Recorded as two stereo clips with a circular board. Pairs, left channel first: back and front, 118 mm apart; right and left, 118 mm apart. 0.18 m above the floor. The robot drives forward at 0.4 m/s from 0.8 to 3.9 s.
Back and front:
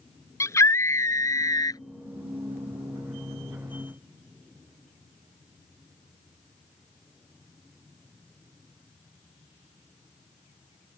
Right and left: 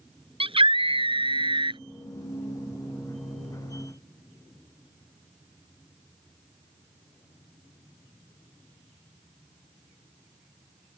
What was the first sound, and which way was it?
A scream, 120° left.